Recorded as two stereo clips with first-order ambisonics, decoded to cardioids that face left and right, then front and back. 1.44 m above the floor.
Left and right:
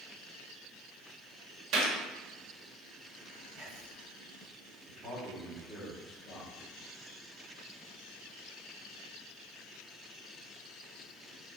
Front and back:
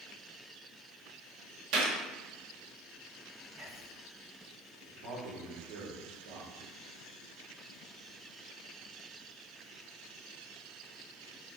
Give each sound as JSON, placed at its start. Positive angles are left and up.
{"t": 1.7, "sound": "a gunshot", "azimuth_deg": -145, "distance_m": 2.0}
{"t": 3.5, "sound": "whispering", "azimuth_deg": -140, "distance_m": 3.5}
{"t": 4.9, "sound": "a man speaking", "azimuth_deg": -175, "distance_m": 4.0}